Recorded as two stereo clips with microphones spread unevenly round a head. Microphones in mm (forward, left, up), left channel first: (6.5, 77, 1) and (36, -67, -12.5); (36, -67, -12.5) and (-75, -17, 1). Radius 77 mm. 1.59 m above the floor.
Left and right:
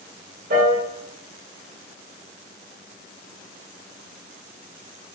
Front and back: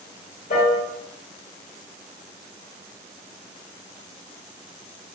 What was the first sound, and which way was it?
A piano, 45° right.